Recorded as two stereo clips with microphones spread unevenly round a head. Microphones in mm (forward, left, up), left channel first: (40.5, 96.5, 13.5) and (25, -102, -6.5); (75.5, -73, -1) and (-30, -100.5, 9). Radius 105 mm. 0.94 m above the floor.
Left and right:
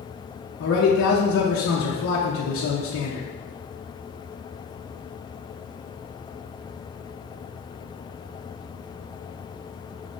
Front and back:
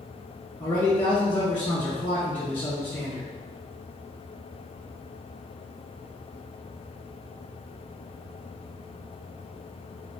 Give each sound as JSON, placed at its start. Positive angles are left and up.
{"t": 0.6, "sound": "a man speaking", "azimuth_deg": 85, "distance_m": 0.7}